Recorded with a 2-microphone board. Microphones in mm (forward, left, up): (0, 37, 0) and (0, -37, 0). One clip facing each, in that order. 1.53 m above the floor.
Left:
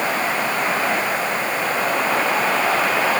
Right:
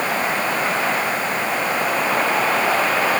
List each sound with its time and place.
Only background noise.